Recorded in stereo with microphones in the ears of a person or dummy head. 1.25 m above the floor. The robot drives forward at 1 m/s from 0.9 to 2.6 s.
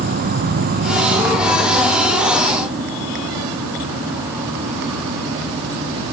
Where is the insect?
50° right (ahead or behind), 0.8 m; by 6.2 s 15° right (ahead or behind), 2.5 m.